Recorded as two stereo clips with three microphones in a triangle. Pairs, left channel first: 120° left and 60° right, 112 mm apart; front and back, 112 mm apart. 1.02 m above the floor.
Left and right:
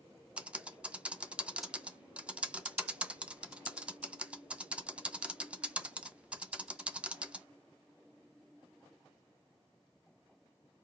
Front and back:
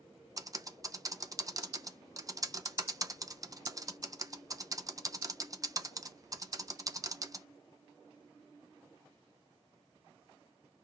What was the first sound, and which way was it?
Typing on a keyboard, 135° right.